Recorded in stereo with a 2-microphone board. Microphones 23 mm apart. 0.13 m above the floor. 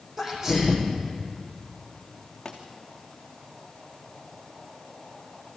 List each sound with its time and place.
0.2 s a sneeze: 10° right (ahead or behind), 6 m
2.5 s a pop: 30° left (ahead or behind), 3.5 m